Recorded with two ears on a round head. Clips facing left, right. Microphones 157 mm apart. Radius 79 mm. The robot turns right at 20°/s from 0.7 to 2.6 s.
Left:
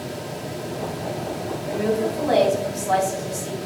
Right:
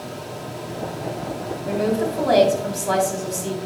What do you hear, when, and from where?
1.6 s a woman speaking: 60° right (ahead or behind), 3 m; by 3.6 s 75° right (ahead or behind), 3 m